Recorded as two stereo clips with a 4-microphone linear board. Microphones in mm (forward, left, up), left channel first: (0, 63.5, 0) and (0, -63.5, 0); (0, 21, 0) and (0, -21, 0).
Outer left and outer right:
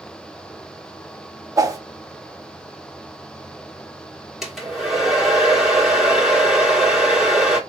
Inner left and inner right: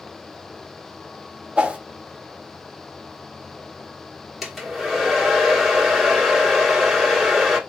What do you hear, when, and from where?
1.6 s a whoosh: 25° right (ahead or behind), 0.6 m
4.4 s a hair dryer: 5° right (ahead or behind), 1.1 m